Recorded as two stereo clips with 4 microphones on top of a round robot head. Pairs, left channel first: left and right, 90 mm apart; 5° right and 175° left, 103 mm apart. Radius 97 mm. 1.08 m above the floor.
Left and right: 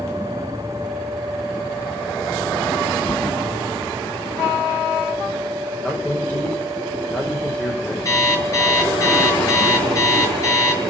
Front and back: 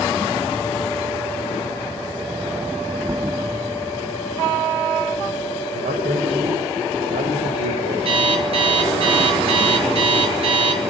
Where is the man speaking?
160° left, 6 m.